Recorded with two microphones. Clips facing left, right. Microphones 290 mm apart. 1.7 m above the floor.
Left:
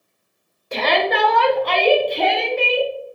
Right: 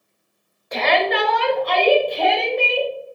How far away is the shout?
About 1.2 m.